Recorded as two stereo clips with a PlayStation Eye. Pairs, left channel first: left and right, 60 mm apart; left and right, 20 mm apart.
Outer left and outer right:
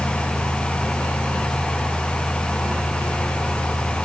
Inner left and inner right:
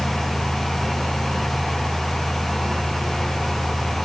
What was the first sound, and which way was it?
Only background noise.